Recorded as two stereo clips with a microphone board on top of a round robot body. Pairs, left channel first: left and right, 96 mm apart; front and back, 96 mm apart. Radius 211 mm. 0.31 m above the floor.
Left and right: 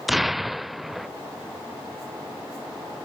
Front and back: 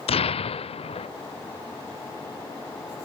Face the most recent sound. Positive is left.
turn(degrees=0)